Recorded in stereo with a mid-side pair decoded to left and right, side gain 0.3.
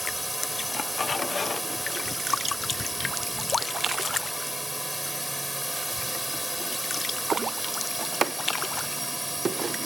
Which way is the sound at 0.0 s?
Straight ahead.